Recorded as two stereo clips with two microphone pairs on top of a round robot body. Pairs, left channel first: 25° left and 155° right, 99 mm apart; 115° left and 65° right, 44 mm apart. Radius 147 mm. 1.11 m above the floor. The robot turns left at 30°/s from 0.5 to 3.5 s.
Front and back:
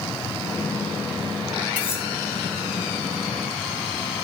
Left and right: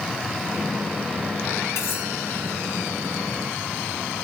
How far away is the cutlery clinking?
About 4 m.